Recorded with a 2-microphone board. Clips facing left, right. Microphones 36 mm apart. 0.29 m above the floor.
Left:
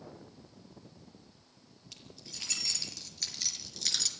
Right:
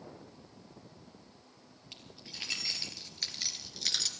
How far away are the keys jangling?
About 5.5 m.